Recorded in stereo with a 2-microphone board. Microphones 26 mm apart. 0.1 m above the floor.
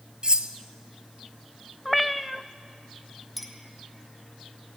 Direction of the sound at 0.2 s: 35° right (ahead or behind).